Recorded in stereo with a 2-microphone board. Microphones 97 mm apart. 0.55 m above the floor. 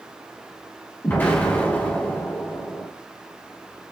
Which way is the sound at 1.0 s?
20° left (ahead or behind).